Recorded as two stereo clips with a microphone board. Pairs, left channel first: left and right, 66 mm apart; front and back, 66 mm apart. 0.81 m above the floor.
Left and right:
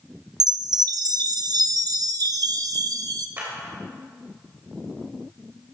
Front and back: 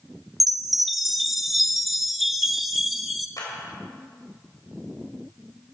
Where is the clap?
30° right, 3.5 m.